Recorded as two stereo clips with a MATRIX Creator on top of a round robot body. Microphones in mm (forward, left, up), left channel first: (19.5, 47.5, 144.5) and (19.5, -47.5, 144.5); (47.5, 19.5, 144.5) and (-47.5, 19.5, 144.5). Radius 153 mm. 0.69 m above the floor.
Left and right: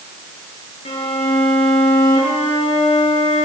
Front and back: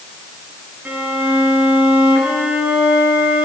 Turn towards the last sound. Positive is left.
turn(degrees=105)